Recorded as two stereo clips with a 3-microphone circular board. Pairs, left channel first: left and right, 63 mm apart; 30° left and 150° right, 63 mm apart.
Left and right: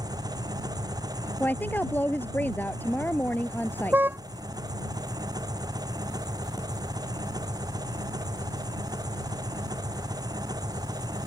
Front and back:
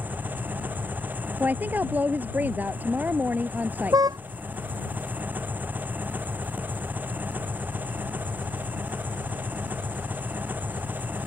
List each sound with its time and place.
0.0 s an engine running: 85° right
1.4 s a woman speaking: 150° left
3.9 s a car horn: 150° right